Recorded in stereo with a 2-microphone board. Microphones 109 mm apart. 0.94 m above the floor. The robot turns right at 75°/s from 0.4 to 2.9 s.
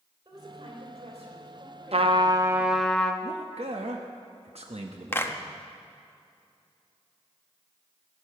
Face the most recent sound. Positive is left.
turn(degrees=20)  # may be behind; listen again after turning